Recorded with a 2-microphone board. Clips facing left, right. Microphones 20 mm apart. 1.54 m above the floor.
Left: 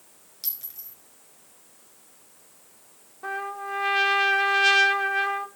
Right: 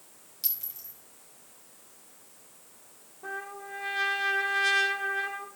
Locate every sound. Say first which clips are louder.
0.4 s a clink: even; 10° left (ahead or behind), 6 m
3.2 s a trumpet: left 7 dB; 40° left (ahead or behind), 0.9 m